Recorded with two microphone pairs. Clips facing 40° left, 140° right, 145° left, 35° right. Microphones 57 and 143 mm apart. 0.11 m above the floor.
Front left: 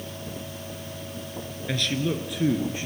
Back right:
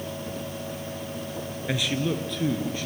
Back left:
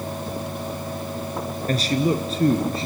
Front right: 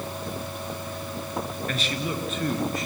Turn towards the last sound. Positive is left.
turn(degrees=100)